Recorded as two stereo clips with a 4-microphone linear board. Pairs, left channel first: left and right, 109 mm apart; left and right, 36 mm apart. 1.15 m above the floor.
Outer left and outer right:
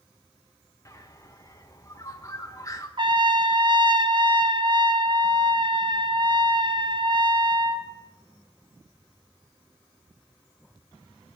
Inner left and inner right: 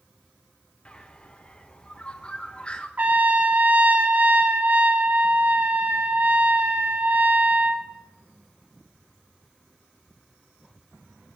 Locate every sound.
0.8 s a bird: 35° left (ahead or behind), 1.5 m
3.0 s a trumpet: 50° right (ahead or behind), 1.1 m